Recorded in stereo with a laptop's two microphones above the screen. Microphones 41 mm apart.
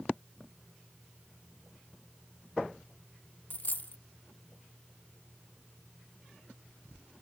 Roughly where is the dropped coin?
Left.